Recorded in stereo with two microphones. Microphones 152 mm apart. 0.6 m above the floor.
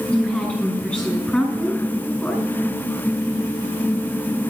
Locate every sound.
0.1 s a woman speaking: 10° left (ahead or behind), 5 m